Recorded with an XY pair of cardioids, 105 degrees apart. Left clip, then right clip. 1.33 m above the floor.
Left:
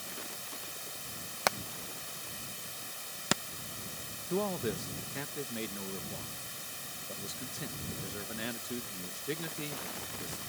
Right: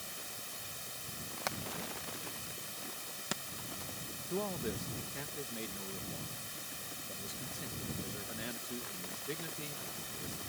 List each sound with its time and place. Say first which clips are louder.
0.0 s running water: left 3 dB; 10° left
1.5 s hammering: left 7 dB; 55° left
4.3 s a man speaking: left 5 dB; 30° left